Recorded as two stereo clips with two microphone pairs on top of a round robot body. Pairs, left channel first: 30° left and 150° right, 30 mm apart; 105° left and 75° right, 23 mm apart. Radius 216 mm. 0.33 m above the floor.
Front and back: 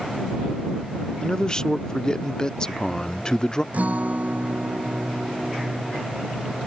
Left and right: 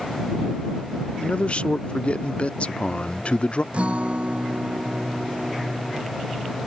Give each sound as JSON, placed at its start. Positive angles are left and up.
{"t": 1.2, "sound": "a man speaking", "azimuth_deg": 105}
{"t": 3.7, "sound": "a guitar", "azimuth_deg": -115}